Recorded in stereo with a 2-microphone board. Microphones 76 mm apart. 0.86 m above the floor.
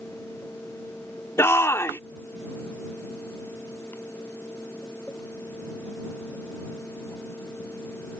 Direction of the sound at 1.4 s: 35° left (ahead or behind).